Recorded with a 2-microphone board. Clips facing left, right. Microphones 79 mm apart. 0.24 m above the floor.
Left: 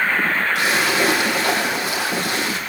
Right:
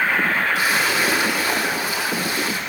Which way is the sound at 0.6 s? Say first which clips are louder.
Left 1 dB; 60° left (ahead or behind).